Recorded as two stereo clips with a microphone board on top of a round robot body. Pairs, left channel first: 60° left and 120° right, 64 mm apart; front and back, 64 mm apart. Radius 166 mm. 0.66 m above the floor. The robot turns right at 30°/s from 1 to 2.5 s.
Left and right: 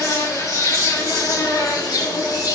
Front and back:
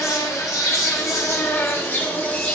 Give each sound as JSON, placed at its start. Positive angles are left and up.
{"t": 0.0, "sound": "an insect", "azimuth_deg": 30, "distance_m": 2.5}